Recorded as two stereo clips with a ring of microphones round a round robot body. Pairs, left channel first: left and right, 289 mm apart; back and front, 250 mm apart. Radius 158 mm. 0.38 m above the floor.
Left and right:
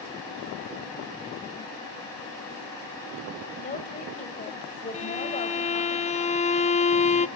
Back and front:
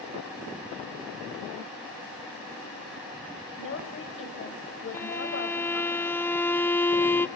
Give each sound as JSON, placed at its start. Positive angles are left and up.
{"t": 3.6, "sound": "a woman speaking", "azimuth_deg": 150, "distance_m": 3.0}
{"t": 4.9, "sound": "a violin", "azimuth_deg": 110, "distance_m": 0.7}